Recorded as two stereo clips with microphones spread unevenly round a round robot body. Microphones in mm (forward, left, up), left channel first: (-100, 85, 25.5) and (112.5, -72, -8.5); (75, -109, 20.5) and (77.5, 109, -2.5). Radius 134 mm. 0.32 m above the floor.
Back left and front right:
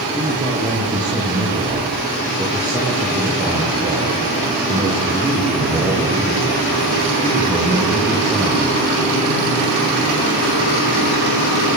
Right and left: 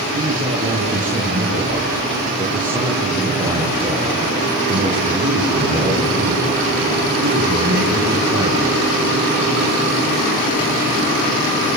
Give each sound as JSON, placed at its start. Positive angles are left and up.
{"t": 0.1, "sound": "a man speaking", "azimuth_deg": 40, "distance_m": 7.0}